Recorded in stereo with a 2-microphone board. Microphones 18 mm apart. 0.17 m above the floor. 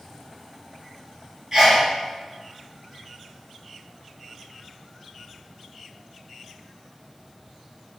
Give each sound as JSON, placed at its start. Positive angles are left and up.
{"t": 1.5, "sound": "a sneeze", "side_deg": -20, "distance_m": 1.5}